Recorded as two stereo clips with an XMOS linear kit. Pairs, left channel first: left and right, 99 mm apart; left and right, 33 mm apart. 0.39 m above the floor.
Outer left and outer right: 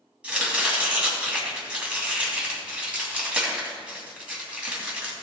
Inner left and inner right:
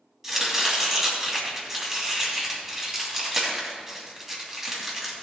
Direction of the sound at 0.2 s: 10° right (ahead or behind).